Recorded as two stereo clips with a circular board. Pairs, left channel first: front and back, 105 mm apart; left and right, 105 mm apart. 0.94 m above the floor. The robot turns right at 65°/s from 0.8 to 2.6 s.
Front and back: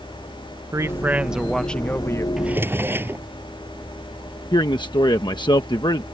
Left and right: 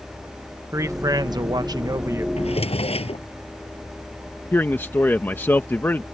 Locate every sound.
0.7 s a man speaking: 135° right; by 2.3 s 40° right
2.4 s a drawer: 95° left; by 3.2 s 110° left
4.5 s a man speaking: 25° left